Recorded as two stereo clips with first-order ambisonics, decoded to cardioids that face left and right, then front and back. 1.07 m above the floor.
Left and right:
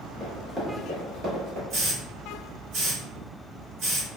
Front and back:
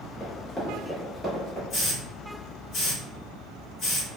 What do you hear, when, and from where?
0.2 s running footsteps: 30° left, 1.1 m; by 1.6 s 105° right, 1.5 m
1.7 s a hiss: 55° right, 1.6 m